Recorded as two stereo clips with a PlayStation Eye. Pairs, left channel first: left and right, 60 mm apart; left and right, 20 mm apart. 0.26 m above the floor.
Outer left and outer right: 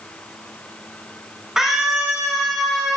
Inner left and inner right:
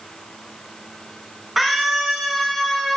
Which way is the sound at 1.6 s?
10° right (ahead or behind).